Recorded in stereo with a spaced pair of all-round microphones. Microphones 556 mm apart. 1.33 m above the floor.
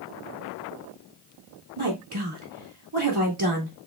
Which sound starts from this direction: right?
A woman speaking, at 1.8 s.